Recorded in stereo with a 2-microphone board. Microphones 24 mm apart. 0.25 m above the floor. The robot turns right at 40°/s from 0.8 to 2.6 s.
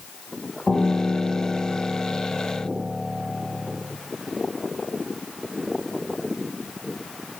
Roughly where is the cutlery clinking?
No cutlery clinking in this recording.